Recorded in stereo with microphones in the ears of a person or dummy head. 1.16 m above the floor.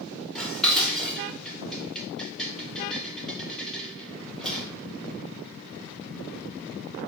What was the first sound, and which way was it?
Dishes clattering, 5° left (ahead or behind).